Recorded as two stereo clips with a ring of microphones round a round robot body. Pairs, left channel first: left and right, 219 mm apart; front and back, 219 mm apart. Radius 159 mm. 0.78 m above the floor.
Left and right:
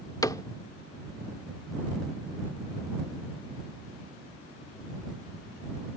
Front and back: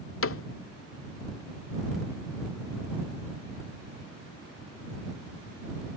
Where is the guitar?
I don't hear a guitar.